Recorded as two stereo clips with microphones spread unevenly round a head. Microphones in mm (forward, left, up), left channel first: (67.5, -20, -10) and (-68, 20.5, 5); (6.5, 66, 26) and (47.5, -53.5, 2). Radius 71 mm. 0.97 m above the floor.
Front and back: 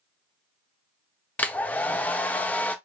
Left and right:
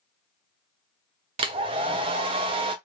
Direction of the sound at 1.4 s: 95° right.